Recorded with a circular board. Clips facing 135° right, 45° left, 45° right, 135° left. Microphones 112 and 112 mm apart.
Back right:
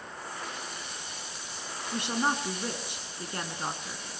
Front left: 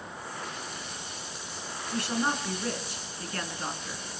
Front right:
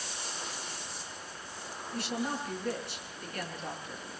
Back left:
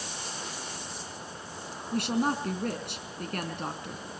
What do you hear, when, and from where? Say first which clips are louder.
1.9 s a woman speaking: even, back left 7 dB; 155° left, 4.5 m